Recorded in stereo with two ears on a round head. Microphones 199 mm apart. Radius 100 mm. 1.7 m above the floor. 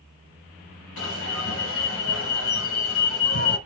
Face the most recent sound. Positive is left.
turn(degrees=60)  # may be behind; listen again after turning